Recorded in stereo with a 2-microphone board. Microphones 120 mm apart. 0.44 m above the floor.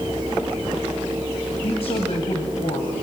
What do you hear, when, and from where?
1.6 s a woman speaking: 60° left (ahead or behind), 2.5 m